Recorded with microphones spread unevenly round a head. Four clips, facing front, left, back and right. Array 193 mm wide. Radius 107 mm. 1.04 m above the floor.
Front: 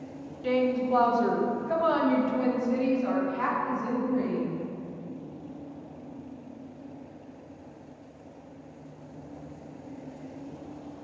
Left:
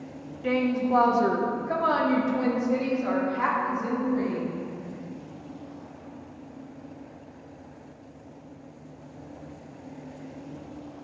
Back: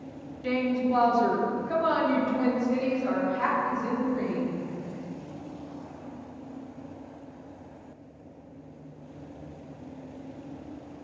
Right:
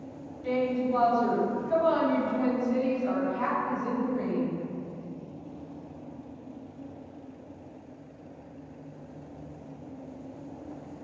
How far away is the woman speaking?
About 1.0 m.